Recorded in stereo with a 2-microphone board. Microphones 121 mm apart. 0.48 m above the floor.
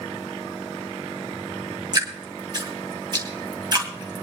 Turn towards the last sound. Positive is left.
turn(degrees=-35)  # may be behind; listen again after turning